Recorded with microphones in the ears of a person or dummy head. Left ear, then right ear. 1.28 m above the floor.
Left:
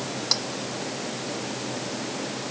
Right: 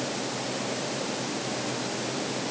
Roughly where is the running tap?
I don't hear a running tap.